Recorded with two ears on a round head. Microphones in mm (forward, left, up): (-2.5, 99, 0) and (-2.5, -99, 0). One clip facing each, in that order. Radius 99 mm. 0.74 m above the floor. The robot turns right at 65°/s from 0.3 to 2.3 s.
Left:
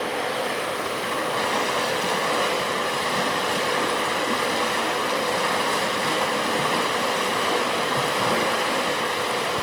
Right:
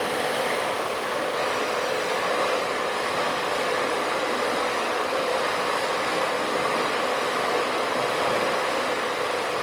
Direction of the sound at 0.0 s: 5° right.